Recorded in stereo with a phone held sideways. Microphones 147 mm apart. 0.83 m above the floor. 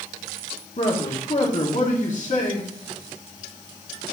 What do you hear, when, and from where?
0.8 s a man speaking: 55° left (ahead or behind), 1.8 m